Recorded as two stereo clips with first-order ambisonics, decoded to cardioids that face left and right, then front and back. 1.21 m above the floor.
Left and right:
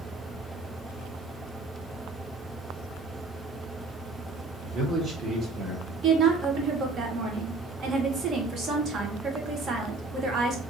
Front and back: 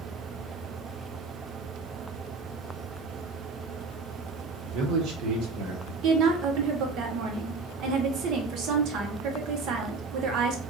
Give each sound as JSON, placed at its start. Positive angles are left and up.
{"t": 4.6, "sound": "a man speaking", "azimuth_deg": -150, "distance_m": 1.2}
{"t": 6.0, "sound": "a woman speaking", "azimuth_deg": -145, "distance_m": 0.9}